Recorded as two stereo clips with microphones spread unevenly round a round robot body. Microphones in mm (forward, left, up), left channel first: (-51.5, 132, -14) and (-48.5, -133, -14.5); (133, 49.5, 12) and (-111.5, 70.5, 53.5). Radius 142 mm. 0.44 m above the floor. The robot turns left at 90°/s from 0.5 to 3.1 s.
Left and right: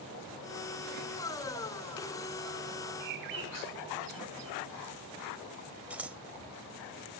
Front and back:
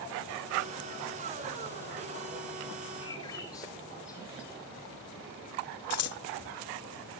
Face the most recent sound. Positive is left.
turn(degrees=-5)